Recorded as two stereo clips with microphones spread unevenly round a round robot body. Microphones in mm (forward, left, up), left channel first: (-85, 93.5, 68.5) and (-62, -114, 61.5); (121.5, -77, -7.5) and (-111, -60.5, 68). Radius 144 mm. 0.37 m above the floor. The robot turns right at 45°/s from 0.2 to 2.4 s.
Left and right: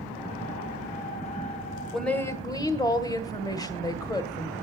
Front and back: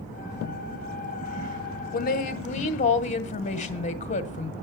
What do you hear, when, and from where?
1.9 s a woman speaking: 5° left, 1.3 m; by 4.5 s 25° left, 1.3 m